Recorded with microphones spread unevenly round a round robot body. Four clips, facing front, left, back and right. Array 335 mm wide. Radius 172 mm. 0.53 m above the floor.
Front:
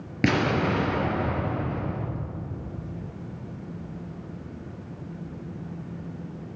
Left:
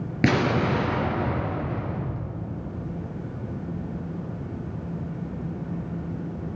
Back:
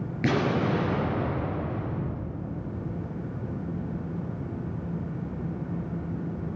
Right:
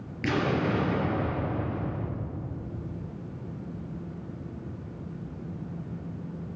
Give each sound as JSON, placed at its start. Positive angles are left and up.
{"t": 0.2, "sound": "an explosion", "azimuth_deg": 60, "distance_m": 3.5}